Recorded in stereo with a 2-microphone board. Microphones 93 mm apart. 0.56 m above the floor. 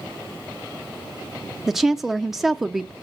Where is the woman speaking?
5° right (ahead or behind), 0.7 m.